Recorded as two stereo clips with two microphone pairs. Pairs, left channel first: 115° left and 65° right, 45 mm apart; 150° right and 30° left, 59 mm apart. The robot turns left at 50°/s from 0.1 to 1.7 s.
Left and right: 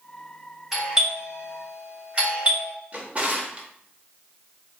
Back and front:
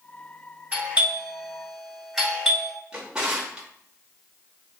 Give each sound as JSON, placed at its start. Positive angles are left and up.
{"t": 0.7, "sound": "a doorbell", "azimuth_deg": 0, "distance_m": 1.7}
{"t": 2.9, "sound": "a drawer", "azimuth_deg": -40, "distance_m": 0.7}